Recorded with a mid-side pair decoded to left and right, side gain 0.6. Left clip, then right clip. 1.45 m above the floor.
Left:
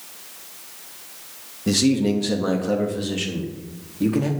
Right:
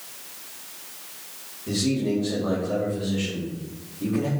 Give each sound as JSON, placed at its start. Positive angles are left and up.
{"t": 1.7, "sound": "a man speaking", "azimuth_deg": 65, "distance_m": 2.5}